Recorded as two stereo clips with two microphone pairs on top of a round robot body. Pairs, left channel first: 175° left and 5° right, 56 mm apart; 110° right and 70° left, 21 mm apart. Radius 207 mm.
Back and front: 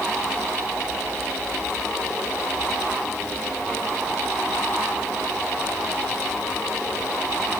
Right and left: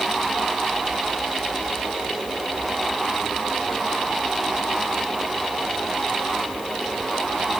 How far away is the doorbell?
No doorbell in this recording.